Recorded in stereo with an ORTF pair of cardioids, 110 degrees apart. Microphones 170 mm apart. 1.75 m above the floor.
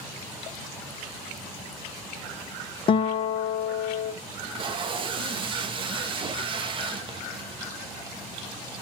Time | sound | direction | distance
2.9 | a guitar | 35° left | 0.6 m
4.3 | tape being pulled | 30° right | 0.7 m